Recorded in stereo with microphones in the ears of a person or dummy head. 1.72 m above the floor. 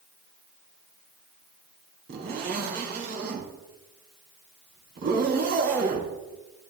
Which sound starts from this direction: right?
A zipper, at 2.1 s.